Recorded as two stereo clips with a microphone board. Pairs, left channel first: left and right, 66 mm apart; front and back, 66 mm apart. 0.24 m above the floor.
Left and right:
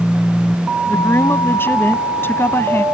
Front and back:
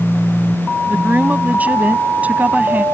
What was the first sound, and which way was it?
A woman speaking, 125° left.